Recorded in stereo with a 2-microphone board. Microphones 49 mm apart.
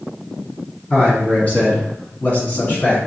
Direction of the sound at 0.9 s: 25° left (ahead or behind).